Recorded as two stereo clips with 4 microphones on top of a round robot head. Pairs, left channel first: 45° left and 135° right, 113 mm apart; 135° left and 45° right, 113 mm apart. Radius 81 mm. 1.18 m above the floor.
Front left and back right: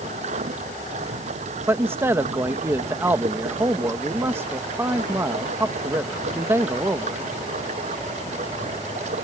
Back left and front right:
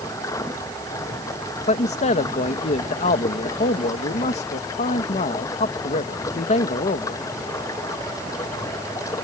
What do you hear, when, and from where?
0.0 s running water: 160° right
1.7 s a man speaking: 155° left